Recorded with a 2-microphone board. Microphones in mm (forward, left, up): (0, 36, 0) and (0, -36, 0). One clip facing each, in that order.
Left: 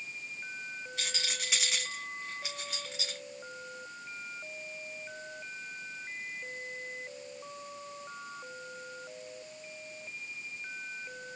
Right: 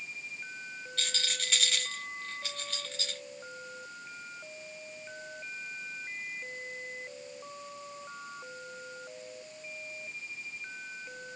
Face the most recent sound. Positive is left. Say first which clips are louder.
# right 1 dB
turn(degrees=15)  # may be behind; listen again after turning